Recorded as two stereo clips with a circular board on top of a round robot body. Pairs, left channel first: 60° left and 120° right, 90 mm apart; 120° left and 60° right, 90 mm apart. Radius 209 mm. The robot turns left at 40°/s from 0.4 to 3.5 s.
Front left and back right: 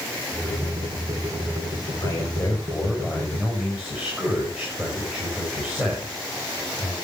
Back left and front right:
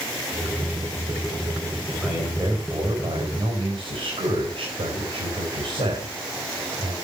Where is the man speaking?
15° left, 5 m; by 6.9 s 45° right, 5 m.